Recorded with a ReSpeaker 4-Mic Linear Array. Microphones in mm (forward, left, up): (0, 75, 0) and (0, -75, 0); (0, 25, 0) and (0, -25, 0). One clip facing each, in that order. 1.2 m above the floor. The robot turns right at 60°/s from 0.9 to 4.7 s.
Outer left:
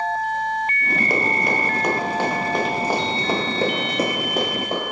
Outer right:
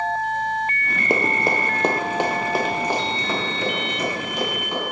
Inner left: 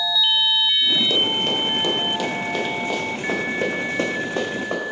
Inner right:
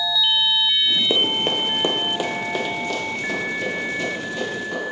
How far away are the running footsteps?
About 1.3 m.